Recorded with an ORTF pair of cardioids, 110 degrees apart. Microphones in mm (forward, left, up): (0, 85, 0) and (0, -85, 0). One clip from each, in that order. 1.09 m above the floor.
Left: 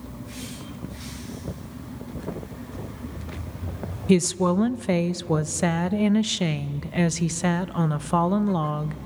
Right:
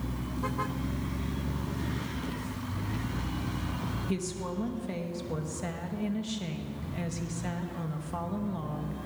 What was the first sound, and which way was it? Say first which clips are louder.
A woman speaking: left 18 dB; 65° left.